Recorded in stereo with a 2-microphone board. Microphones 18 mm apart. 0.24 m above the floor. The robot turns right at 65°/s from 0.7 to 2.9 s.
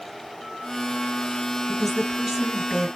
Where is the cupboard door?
No cupboard door in this recording.